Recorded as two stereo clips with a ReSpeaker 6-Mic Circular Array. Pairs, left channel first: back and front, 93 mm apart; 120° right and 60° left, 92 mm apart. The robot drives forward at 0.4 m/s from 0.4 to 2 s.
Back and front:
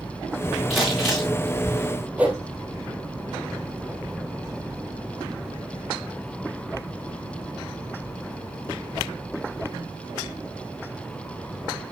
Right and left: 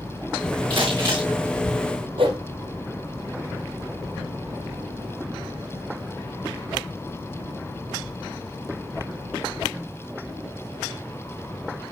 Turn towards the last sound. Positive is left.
turn(degrees=75)